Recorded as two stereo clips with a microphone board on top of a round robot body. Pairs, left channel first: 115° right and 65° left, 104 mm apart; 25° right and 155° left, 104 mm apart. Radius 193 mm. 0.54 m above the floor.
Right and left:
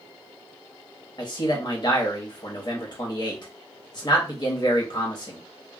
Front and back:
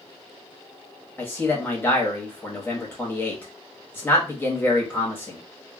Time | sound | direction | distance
1.2 | a man speaking | 85° right | 1.1 m